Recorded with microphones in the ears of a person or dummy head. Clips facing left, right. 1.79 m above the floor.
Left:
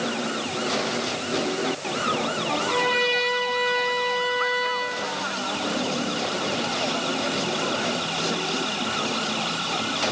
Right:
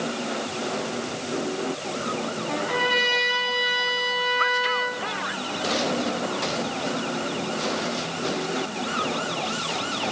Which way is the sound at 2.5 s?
15° right (ahead or behind).